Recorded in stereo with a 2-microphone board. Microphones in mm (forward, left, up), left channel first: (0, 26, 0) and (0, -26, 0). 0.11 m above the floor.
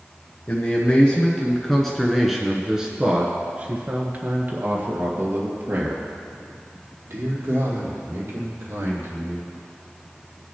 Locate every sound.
0.5 s a man speaking: 30° left (ahead or behind), 1.5 m; by 9.5 s 55° right (ahead or behind), 4 m